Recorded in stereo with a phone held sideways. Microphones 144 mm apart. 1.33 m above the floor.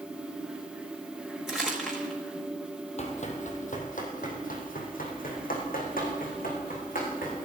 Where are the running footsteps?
50° left (ahead or behind), 2.5 m; by 7.5 s 70° left (ahead or behind), 6.5 m.